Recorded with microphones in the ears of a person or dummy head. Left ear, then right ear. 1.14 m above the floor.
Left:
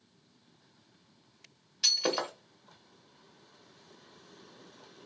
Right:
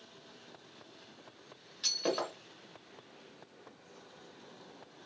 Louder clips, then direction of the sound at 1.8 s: Left 5 dB; 25° left (ahead or behind).